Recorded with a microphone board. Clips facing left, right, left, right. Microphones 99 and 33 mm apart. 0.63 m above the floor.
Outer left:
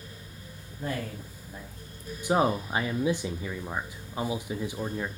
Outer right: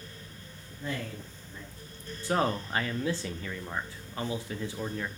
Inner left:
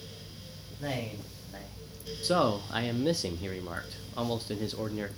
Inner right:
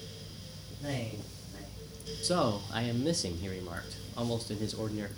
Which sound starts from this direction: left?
A man speaking, at 0.8 s.